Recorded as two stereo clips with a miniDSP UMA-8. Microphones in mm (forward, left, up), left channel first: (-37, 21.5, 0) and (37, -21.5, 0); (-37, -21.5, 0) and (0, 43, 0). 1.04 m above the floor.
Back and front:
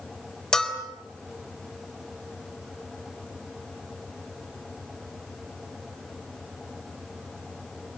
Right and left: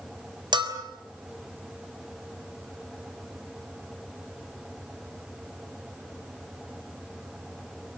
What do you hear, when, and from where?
0.5 s a bell: 70° left, 4 m